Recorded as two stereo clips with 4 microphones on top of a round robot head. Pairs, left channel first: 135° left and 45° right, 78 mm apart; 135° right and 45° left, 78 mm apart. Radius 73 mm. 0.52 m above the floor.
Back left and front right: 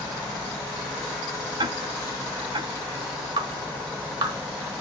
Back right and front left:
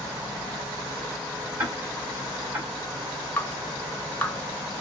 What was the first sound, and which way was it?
Ticking, 30° right.